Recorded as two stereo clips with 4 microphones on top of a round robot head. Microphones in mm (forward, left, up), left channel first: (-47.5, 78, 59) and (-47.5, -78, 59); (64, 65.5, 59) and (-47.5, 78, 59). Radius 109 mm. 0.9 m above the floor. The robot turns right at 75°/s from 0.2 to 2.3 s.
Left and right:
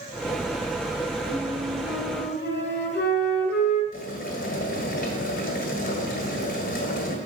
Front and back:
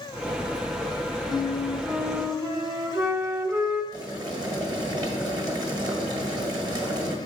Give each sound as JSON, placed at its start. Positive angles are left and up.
{"t": 1.3, "sound": "a flute", "azimuth_deg": 30, "distance_m": 1.1}
{"t": 3.9, "sound": "boiling", "azimuth_deg": 120, "distance_m": 1.6}